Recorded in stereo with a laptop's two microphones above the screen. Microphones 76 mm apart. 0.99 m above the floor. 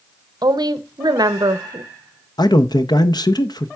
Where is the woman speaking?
70° right (ahead or behind), 0.6 m.